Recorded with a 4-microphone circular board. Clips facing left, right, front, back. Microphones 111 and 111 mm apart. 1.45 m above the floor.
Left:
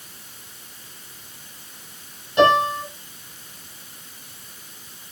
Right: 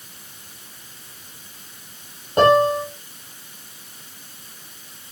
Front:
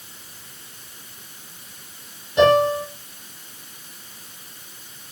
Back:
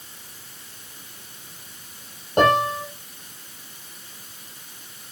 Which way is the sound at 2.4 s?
140° right.